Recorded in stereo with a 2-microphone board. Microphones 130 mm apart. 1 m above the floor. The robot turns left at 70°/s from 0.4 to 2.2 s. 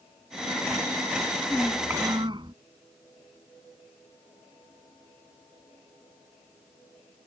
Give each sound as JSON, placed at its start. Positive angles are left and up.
{"t": 1.5, "sound": "a child speaking", "azimuth_deg": 10}